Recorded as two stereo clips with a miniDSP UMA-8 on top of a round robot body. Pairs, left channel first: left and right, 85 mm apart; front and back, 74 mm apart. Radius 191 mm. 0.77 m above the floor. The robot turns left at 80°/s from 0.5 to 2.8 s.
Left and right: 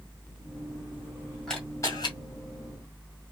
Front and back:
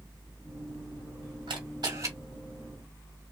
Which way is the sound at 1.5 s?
175° left.